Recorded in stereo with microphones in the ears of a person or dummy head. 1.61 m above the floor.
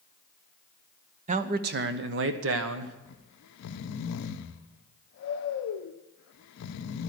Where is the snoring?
65° left (ahead or behind), 0.6 m.